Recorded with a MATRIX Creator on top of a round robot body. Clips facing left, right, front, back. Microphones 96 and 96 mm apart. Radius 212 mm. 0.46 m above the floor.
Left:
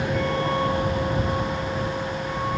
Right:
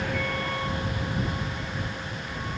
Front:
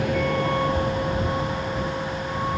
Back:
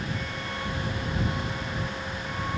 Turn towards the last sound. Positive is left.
turn(degrees=55)